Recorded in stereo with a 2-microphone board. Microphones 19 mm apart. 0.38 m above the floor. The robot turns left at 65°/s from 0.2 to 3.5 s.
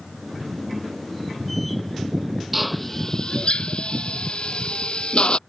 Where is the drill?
5° right (ahead or behind); by 5.4 s 55° left (ahead or behind).